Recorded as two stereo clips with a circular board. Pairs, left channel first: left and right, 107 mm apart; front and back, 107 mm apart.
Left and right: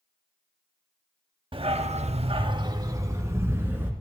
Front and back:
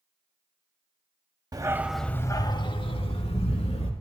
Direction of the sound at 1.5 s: 125° right.